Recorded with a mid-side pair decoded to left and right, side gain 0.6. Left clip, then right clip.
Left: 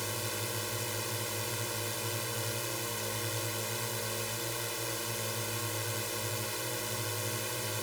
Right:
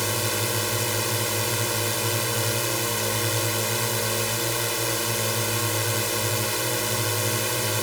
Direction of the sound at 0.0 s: 50° right.